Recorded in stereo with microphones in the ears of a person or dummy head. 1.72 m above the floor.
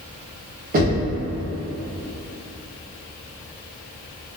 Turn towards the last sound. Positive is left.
turn(degrees=-45)  # may be behind; listen again after turning